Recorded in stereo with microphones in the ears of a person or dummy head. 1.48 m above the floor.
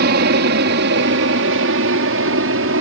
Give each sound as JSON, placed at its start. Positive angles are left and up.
{"t": 0.0, "sound": "an aircraft", "side_deg": -60}